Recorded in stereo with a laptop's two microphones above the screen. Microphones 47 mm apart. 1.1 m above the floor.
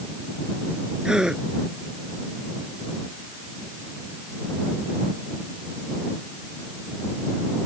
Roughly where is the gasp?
Centre.